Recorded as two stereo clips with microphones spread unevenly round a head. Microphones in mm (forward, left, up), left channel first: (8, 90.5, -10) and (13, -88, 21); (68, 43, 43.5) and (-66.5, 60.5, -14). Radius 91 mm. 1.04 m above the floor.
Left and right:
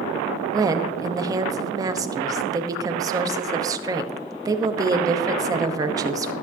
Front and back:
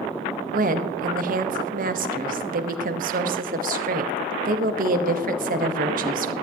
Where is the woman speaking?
160° right, 1.0 m.